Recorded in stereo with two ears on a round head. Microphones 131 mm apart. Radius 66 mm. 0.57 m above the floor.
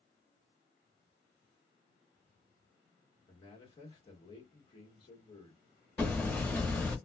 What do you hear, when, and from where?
3.3 s a man speaking: 35° left (ahead or behind), 1.5 m
6.0 s hammering: 10° left (ahead or behind), 0.8 m